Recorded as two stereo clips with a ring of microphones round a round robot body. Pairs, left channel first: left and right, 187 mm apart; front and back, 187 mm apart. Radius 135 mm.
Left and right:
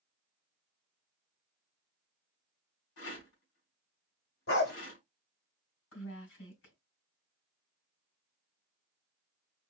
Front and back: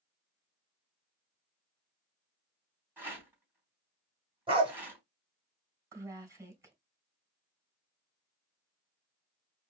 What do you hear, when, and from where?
3.0 s a rattle: 100° left, 3.5 m
4.5 s a dog barking: 115° left, 2.5 m
5.9 s a woman speaking: 105° left, 3.5 m